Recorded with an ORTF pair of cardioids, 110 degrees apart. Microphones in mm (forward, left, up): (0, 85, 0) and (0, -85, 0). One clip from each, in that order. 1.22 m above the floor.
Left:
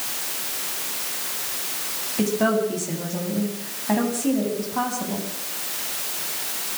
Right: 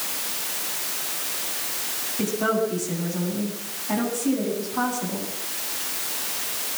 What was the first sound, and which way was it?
A woman speaking, 60° left.